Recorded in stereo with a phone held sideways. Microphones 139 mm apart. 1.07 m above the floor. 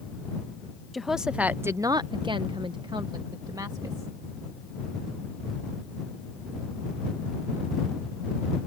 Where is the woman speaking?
Centre (ahead or behind); by 4.1 s 25° right (ahead or behind).